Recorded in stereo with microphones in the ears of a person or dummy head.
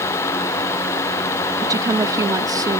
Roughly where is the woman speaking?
Centre.